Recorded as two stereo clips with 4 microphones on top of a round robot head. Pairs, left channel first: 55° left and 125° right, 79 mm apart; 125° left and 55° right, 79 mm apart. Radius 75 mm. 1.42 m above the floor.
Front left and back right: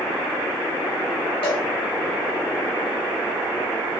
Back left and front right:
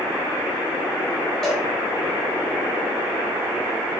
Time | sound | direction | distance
1.4 | a cowbell | 40° left | 5.5 m